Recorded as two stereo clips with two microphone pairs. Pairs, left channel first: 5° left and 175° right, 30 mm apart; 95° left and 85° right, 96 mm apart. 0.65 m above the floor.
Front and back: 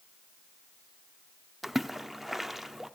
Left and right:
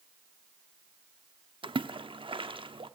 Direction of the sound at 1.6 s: 85° right.